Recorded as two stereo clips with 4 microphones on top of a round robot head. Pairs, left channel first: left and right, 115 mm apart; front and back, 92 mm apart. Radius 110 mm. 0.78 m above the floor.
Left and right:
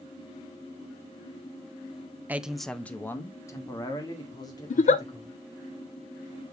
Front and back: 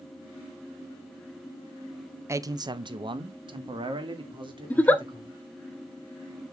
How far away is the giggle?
About 0.9 m.